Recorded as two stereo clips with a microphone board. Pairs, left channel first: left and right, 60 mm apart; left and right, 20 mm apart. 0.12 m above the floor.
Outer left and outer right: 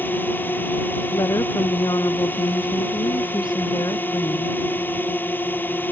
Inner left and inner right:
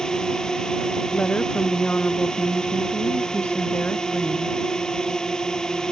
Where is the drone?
35° left (ahead or behind).